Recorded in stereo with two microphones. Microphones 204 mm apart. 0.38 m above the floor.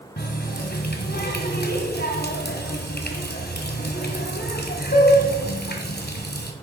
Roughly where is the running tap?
Left.